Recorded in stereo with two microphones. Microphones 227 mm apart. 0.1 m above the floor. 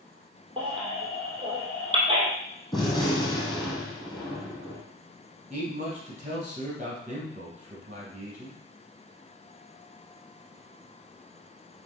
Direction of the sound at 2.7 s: 20° left (ahead or behind).